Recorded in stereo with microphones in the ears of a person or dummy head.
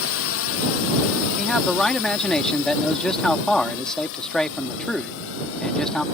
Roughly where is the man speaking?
Centre.